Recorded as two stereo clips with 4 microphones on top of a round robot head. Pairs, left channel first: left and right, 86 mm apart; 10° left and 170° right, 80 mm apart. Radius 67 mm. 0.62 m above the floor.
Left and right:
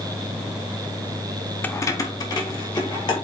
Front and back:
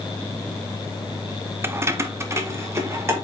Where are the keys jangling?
150° left, 0.7 m; by 3.1 s 135° left, 2.5 m.